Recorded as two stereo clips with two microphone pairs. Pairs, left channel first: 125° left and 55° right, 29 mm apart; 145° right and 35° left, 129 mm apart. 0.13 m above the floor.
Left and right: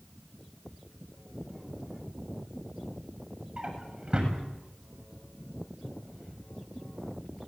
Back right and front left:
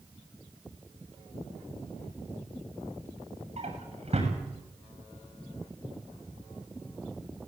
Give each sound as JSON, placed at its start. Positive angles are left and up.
{"t": 3.6, "sound": "a drawer", "azimuth_deg": 0, "distance_m": 7.0}